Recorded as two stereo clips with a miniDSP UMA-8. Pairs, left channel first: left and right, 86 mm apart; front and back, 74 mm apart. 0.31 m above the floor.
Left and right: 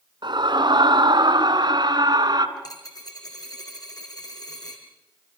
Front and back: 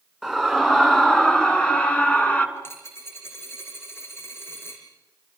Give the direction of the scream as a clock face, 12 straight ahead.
3 o'clock.